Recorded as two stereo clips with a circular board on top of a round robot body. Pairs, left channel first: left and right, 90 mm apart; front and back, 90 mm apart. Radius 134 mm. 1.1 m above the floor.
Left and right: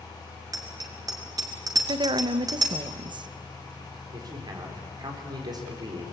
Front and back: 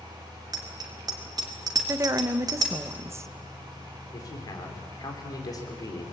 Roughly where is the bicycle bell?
Behind right.